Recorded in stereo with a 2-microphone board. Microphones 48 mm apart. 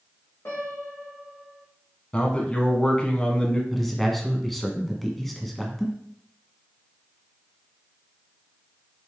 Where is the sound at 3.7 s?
5° left (ahead or behind), 1.3 m.